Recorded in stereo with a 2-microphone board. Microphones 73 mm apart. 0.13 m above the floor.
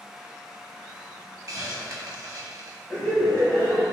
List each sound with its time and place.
1.5 s a hiss: 55° right (ahead or behind), 0.5 m
2.9 s laughter: 20° left (ahead or behind), 1.8 m